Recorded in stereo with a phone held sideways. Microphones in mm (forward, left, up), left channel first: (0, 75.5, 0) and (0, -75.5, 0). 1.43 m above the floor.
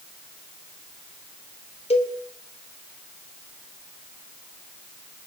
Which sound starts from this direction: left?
A cowbell, at 1.9 s.